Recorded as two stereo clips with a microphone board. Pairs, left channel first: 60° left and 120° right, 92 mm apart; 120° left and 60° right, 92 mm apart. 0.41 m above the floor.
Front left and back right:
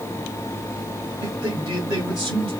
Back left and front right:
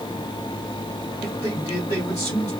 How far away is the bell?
No bell in this recording.